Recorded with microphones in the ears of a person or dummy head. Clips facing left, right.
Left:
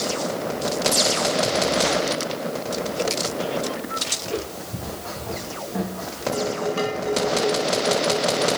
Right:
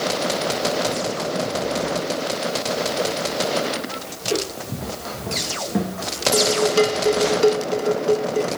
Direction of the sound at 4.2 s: 60° right (ahead or behind).